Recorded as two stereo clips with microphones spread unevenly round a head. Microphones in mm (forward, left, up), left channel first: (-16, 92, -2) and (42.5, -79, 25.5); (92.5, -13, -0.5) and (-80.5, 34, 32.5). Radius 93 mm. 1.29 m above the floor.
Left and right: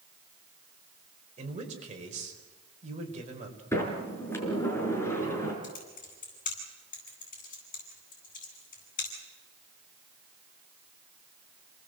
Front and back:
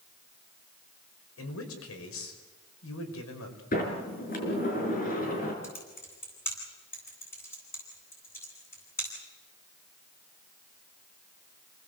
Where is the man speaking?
20° right, 5 m.